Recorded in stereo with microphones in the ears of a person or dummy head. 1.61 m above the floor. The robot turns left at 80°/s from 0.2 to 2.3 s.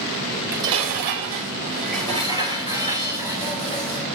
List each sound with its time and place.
0.3 s dishes clattering: straight ahead, 4 m; by 4.0 s 155° right, 4 m